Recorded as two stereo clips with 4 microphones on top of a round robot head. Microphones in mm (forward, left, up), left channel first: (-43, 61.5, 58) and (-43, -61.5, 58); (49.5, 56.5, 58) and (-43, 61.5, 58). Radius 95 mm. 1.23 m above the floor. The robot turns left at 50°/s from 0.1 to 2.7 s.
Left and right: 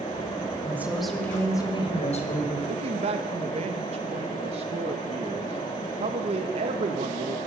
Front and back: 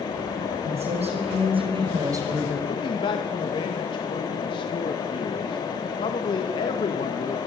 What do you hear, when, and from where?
0.6 s a woman speaking: 160° right, 5.5 m; by 2.6 s 105° left, 5.5 m
2.7 s a man speaking: 45° right, 2.0 m